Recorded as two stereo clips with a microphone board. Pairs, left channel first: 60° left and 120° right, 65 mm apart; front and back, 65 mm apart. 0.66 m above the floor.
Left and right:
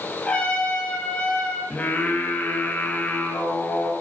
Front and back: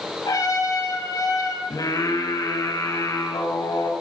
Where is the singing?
5° right, 4.5 m.